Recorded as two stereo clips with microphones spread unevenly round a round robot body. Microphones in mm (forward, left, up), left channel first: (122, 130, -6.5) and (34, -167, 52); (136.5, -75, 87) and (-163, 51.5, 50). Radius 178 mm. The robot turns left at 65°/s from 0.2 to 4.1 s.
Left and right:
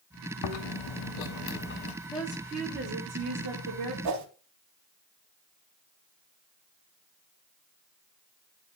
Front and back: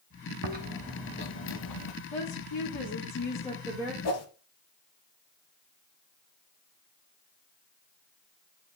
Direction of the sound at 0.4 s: 100° left.